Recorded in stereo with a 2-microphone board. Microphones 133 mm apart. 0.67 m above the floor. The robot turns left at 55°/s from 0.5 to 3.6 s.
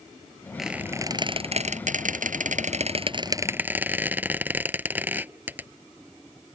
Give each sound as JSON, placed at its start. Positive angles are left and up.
{"t": 0.6, "sound": "a squeak", "side_deg": 0}